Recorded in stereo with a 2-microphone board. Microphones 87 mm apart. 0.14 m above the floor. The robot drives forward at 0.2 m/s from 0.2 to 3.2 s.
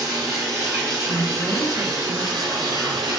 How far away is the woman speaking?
About 1.8 m.